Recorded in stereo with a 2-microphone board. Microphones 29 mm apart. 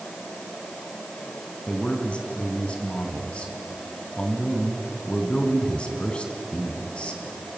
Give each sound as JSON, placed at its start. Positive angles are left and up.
{"t": 1.7, "sound": "a man speaking", "side_deg": 40, "distance_m": 3.0}